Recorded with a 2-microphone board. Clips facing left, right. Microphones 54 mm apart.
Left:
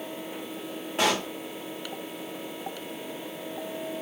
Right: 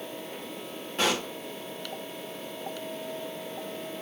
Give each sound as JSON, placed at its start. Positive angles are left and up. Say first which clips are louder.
{"t": 1.0, "sound": "a pop", "louder": "left 2 dB", "side_deg": 15, "distance_m": 2.5}